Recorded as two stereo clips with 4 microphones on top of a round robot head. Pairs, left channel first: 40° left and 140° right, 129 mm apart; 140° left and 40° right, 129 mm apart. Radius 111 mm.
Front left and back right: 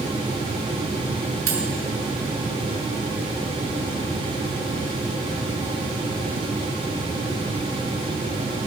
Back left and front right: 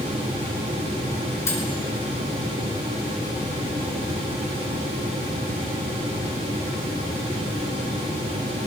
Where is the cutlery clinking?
150° right, 5 m.